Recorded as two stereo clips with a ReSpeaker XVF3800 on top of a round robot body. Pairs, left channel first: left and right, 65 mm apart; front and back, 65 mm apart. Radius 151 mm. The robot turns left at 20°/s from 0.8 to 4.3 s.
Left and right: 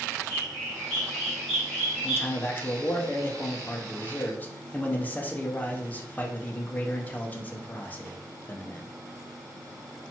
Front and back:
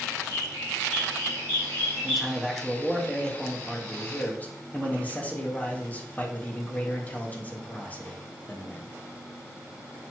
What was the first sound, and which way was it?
A bird, 25° left.